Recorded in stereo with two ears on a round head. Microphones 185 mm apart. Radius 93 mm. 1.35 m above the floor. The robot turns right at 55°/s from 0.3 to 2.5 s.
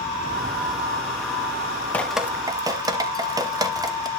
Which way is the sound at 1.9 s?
10° left (ahead or behind).